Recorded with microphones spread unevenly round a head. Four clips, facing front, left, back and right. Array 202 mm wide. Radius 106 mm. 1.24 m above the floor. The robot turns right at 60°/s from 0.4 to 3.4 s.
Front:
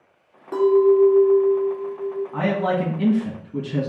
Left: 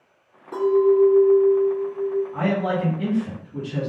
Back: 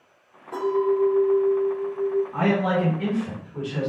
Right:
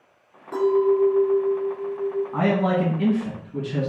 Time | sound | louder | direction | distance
0.5 | a clink | left 2 dB, front 7 dB | 15° left | 1.9 m
2.3 | a man speaking | right 2 dB, even | 80° right | 1.5 m